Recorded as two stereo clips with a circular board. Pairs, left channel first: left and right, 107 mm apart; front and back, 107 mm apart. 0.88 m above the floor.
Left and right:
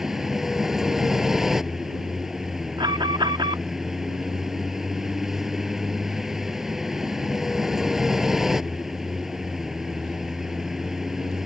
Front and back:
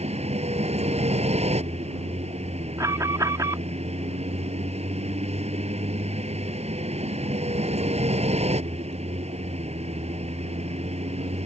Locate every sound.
0.0 s a vehicle: 175° right
2.8 s an alarm: 125° right